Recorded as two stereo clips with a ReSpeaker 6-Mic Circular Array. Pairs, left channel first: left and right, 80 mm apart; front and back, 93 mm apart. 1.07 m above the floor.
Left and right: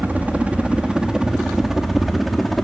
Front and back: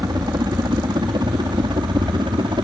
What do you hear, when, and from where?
0.0 s a helicopter: 155° right; by 2.6 s straight behind